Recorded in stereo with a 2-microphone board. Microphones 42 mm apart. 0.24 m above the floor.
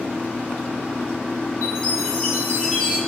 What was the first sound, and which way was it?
A chime, 25° left (ahead or behind).